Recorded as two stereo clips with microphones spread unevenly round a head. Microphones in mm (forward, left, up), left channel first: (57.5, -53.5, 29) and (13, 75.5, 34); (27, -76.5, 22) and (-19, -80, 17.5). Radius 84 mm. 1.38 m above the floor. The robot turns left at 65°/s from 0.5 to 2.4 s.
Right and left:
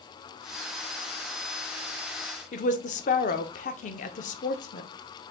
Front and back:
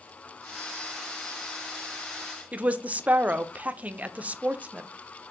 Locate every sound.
2.5 s a woman speaking: 115° right, 0.6 m